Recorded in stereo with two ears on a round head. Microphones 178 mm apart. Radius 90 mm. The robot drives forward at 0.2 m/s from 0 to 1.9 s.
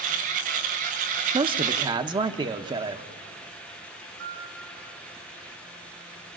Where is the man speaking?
25° right (ahead or behind), 0.8 m.